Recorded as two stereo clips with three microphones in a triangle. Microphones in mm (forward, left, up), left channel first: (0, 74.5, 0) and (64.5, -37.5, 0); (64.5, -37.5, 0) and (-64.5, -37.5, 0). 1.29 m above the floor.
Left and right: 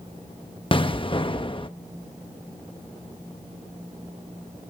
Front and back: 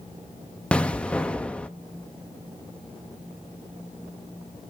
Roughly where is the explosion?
Left.